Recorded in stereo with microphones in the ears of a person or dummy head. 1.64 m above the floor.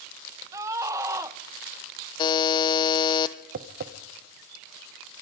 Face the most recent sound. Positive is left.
turn(degrees=-60)  # may be behind; listen again after turning